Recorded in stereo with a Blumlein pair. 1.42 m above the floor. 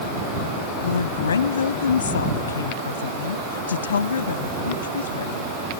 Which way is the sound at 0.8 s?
70° left.